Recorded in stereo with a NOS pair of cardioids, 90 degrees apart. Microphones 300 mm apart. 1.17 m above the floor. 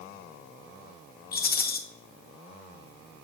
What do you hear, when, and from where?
1.3 s a rattle: 35° left, 1.1 m